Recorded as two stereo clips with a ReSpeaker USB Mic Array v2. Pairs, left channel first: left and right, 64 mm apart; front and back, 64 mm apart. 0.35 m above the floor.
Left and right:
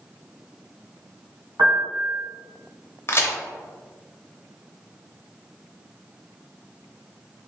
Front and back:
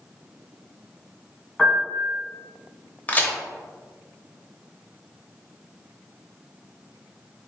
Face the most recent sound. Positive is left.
turn(degrees=55)